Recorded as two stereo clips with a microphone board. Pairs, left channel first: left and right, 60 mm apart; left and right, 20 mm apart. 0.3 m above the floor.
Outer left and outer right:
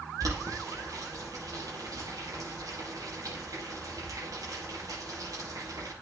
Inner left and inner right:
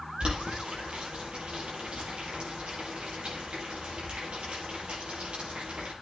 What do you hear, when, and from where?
0.2 s boiling: 80° right, 6.5 m